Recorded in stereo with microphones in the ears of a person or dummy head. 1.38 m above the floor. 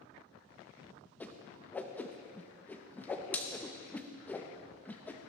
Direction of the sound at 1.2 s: 10° left (ahead or behind).